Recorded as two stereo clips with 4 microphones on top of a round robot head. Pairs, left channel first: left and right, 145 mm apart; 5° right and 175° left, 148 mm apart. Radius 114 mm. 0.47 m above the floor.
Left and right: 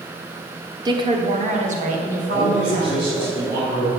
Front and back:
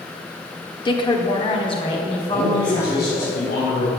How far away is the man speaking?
About 3.5 m.